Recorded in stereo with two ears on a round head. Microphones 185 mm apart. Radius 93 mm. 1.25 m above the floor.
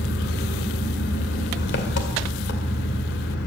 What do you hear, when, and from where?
0.0 s an engine running: 60° left (ahead or behind), 2.5 m